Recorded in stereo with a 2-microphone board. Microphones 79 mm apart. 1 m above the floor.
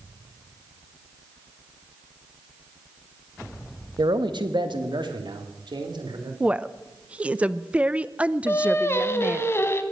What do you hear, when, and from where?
4.0 s a man speaking: 65° right (ahead or behind), 1.1 m; by 6.3 s 75° right (ahead or behind), 3.5 m
6.4 s a woman speaking: 15° right (ahead or behind), 0.6 m
8.5 s singing: 30° left (ahead or behind), 1.2 m